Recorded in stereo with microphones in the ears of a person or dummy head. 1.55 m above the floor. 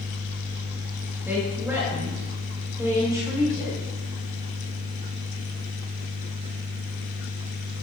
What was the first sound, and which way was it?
A woman speaking, 15° right (ahead or behind).